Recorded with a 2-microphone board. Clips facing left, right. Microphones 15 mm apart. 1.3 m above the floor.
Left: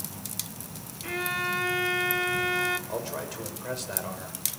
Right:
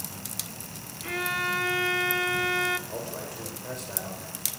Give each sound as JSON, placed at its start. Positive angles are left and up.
{"t": 1.0, "sound": "a violin", "side_deg": -5, "distance_m": 0.7}
{"t": 2.9, "sound": "a man speaking", "side_deg": 30, "distance_m": 6.0}